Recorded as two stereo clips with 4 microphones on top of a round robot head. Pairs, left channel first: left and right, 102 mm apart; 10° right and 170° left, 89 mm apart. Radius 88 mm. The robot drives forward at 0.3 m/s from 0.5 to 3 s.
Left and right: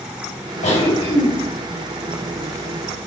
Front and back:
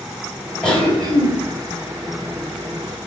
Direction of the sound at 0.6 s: 70° left.